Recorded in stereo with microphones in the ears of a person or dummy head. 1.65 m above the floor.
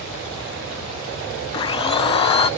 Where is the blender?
30° left (ahead or behind), 0.7 m.